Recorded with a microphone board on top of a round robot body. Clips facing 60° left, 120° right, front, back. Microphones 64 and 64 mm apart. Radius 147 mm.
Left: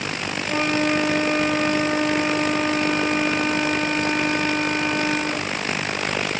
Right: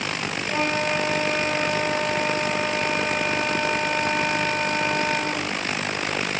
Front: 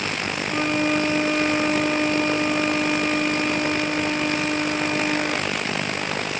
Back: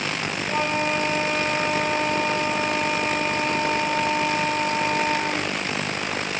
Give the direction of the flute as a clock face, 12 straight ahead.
8 o'clock.